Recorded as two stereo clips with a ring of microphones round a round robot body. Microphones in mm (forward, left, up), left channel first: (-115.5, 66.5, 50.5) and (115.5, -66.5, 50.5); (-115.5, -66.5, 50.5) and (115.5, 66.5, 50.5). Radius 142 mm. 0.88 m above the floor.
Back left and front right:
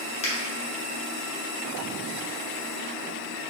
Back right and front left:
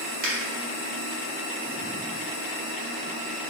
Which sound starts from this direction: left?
A finger snap, at 0.2 s.